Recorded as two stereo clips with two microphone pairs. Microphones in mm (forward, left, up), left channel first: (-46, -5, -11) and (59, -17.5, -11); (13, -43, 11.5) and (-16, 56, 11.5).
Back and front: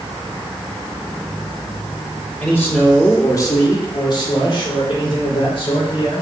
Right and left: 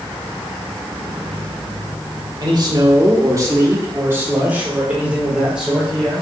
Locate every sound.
2.4 s a man speaking: 105° left, 1.7 m; by 6.2 s 170° right, 2.5 m